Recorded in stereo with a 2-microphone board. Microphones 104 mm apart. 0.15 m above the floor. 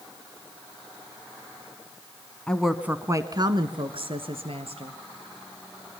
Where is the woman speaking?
10° left (ahead or behind), 1.1 m; by 5.0 s 70° right (ahead or behind), 3 m.